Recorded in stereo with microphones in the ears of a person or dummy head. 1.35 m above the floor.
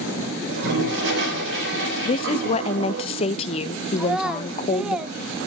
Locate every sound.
0.5 s a toilet flushing: 65° right (ahead or behind), 4 m
2.0 s a woman speaking: 35° left (ahead or behind), 0.9 m
4.0 s a child speaking: centre (ahead or behind), 0.7 m